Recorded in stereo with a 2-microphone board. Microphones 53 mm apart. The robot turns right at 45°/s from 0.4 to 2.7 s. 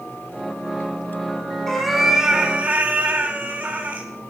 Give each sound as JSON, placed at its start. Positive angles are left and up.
{"t": 1.7, "sound": "a cat meowing", "azimuth_deg": 170, "distance_m": 0.9}